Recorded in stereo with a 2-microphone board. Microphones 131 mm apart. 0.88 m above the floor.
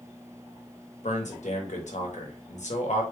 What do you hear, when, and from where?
1.0 s a man speaking: 65° left (ahead or behind), 1.0 m